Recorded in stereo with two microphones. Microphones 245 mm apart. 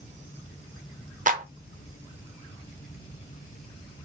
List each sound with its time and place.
1.3 s a clap: 35° right (ahead or behind), 0.8 m